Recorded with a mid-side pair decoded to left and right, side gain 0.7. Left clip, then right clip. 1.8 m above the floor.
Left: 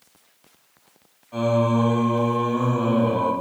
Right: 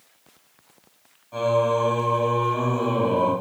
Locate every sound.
1.3 s singing: 5° left, 1.1 m